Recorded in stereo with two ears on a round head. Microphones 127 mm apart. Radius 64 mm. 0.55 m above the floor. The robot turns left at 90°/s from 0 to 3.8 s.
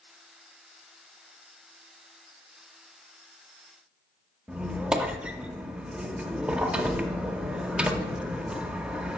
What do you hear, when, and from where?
4.5 s a squeak: 5° right (ahead or behind), 0.5 m